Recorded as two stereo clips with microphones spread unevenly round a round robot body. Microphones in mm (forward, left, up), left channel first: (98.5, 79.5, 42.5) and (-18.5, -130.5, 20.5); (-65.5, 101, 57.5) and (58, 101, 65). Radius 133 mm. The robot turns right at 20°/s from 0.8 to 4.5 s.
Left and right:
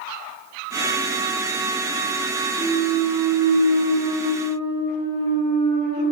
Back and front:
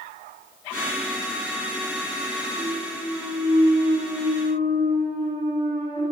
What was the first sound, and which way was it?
A clunk, 35° right.